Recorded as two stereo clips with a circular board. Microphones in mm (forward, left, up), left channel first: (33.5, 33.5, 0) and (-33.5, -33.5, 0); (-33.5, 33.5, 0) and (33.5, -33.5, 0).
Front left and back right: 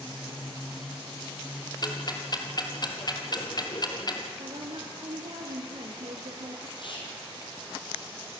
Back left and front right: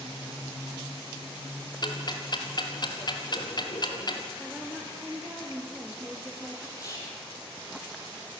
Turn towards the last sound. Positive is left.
turn(degrees=80)